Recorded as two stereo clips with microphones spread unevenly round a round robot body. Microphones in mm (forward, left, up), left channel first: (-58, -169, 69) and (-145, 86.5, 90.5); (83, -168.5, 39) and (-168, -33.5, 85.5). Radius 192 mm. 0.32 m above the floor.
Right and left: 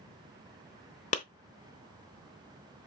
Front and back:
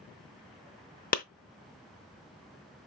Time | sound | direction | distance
1.1 | a clap | 40° right | 0.7 m